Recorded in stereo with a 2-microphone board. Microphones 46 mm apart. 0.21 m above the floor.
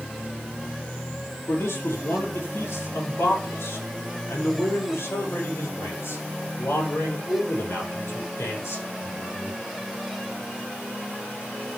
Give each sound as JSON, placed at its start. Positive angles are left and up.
{"t": 1.5, "sound": "a man speaking", "side_deg": 75, "distance_m": 4.5}